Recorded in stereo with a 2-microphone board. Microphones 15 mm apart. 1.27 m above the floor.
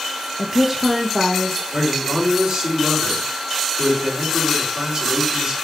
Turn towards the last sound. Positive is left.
turn(degrees=-65)  # may be behind; listen again after turning